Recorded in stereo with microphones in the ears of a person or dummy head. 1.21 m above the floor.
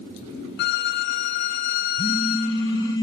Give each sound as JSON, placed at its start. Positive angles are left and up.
{"t": 0.6, "sound": "a violin", "side_deg": 60, "distance_m": 1.0}
{"t": 2.0, "sound": "a phone buzzing", "side_deg": 15, "distance_m": 0.9}